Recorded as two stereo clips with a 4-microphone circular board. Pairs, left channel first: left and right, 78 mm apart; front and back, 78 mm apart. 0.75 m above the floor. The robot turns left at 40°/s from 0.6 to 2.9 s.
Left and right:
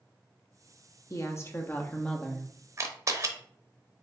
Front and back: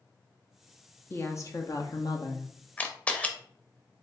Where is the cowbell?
No cowbell in this recording.